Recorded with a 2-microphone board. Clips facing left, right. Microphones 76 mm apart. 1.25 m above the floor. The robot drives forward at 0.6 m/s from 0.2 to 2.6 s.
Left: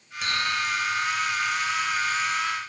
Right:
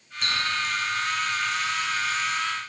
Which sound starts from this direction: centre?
A running tap, at 0.2 s.